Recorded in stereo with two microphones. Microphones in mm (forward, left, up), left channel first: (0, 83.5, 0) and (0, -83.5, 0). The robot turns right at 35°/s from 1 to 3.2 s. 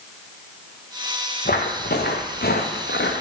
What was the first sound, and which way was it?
Footsteps, 65° left (ahead or behind).